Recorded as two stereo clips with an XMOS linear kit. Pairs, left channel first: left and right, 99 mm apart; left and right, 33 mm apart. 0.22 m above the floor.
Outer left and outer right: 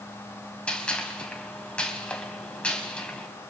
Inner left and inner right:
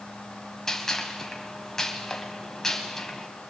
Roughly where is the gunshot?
Centre.